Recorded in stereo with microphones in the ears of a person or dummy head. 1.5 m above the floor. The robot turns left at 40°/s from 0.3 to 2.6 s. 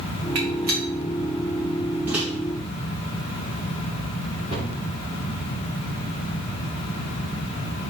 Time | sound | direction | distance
0.3 | a gunshot | 60° right (ahead or behind) | 2.5 m
2.1 | a microwave | 10° right (ahead or behind) | 1.9 m
4.5 | a cupboard door | 35° left (ahead or behind) | 4.5 m